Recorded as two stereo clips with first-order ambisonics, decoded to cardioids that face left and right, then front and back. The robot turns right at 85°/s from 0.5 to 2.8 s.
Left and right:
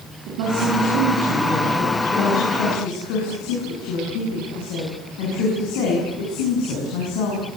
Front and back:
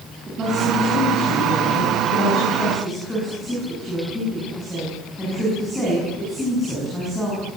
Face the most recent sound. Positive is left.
turn(degrees=85)